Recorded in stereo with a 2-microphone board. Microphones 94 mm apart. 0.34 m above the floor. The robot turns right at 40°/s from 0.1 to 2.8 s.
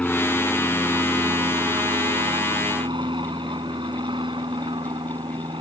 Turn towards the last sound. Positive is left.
turn(degrees=-80)